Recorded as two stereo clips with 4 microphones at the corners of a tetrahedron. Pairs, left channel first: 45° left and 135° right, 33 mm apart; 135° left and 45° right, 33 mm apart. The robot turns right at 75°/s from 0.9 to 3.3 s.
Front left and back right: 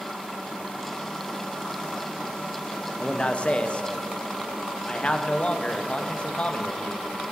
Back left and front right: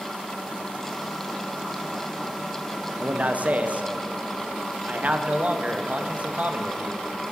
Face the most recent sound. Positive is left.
turn(degrees=-10)